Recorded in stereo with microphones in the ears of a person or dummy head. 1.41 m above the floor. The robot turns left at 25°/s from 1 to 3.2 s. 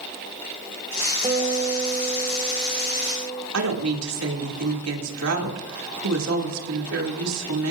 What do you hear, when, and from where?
1.2 s a guitar: 160° right, 1.5 m; by 3.4 s 155° left, 1.5 m
3.5 s a woman speaking: 90° right, 2.5 m